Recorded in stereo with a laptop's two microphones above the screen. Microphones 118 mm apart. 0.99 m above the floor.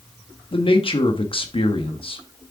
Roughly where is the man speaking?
Left.